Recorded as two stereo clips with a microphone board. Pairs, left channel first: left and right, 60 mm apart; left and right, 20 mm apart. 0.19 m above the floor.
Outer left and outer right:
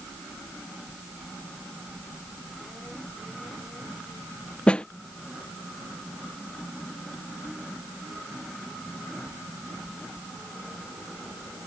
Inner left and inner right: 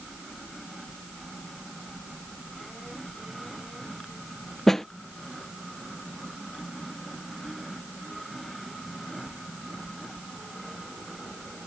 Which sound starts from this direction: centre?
A snare drum, at 4.7 s.